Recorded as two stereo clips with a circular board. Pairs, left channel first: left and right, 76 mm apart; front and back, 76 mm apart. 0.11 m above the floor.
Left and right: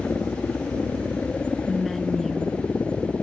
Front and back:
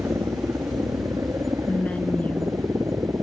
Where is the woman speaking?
5° left.